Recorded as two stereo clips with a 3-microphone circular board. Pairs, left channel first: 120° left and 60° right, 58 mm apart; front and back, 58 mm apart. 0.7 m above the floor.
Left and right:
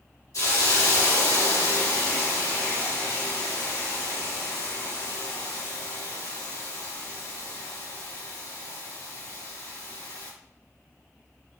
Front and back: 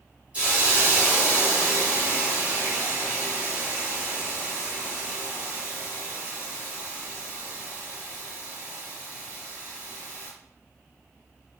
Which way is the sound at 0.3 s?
115° left.